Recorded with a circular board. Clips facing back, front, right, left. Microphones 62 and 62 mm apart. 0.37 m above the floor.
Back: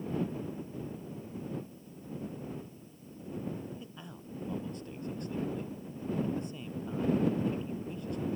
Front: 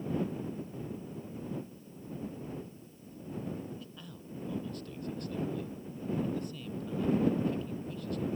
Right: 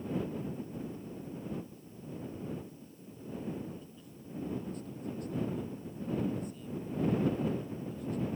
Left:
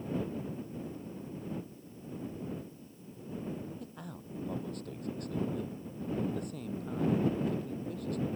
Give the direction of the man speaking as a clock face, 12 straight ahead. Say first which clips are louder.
Back 1 dB, left 5 dB; 8 o'clock.